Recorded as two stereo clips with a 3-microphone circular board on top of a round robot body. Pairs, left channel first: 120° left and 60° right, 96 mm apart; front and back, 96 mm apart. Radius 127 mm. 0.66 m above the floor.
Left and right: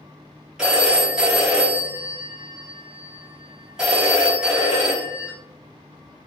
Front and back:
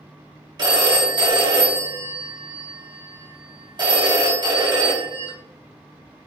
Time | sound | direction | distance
0.6 | a phone ringing | 145° right | 1.3 m